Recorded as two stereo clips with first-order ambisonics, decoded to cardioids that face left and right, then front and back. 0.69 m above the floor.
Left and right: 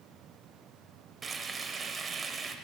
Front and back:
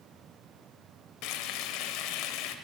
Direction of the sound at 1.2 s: 20° right.